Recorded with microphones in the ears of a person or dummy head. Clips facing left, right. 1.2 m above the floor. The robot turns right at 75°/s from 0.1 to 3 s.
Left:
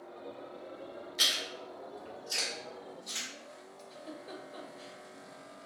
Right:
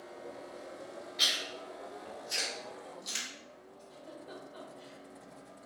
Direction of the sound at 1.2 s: 60° left (ahead or behind).